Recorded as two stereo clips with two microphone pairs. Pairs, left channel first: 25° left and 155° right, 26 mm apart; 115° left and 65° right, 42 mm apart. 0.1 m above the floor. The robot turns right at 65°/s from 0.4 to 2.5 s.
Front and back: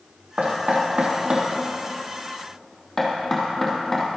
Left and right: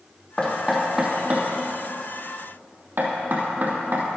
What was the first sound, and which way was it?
Knocking, 175° right.